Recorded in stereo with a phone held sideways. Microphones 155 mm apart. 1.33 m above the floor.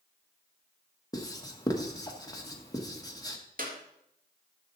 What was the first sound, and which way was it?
Writing, 20° left (ahead or behind).